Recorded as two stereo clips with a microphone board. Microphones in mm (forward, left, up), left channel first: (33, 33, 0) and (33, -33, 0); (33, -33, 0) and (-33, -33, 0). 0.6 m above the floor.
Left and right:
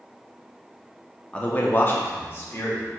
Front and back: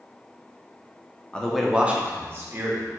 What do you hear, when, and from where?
1.3 s a man speaking: 45° left, 0.6 m; by 2.9 s 140° left, 1.5 m